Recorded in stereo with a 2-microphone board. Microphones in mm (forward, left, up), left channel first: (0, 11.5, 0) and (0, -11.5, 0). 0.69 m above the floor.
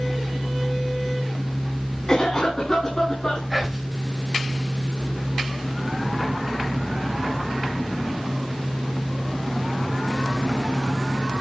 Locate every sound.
2.1 s a cough: 25° left (ahead or behind), 6 m
3.5 s whispering: 5° right (ahead or behind), 3 m